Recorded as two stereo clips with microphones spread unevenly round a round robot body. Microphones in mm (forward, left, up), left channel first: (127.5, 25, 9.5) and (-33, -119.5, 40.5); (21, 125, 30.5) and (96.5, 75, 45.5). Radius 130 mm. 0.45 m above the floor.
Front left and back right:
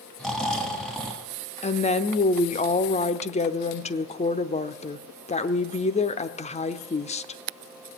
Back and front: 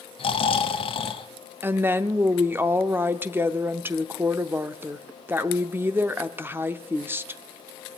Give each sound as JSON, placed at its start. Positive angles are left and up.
{"t": 0.2, "sound": "snoring", "azimuth_deg": 130, "distance_m": 1.5}
{"t": 1.6, "sound": "a woman speaking", "azimuth_deg": 35, "distance_m": 0.9}